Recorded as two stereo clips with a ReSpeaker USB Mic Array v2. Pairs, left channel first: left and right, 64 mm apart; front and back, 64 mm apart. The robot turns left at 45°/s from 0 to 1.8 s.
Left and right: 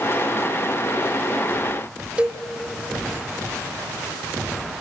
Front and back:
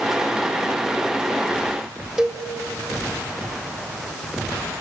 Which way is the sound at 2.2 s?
115° right.